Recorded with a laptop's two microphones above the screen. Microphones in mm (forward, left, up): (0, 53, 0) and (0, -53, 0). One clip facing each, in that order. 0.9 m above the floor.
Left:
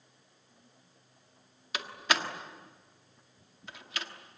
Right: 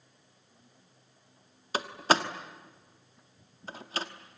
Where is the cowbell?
I don't hear a cowbell.